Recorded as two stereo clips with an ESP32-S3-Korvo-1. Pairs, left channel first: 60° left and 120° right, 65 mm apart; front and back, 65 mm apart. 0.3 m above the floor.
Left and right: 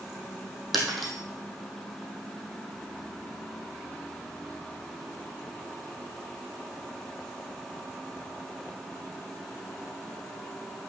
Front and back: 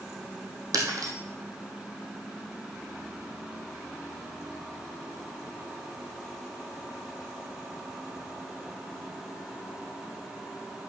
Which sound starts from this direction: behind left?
Breaking glass, at 0.7 s.